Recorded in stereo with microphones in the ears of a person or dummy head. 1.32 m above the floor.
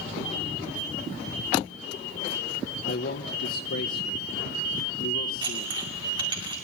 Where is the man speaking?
55° left (ahead or behind), 0.7 m.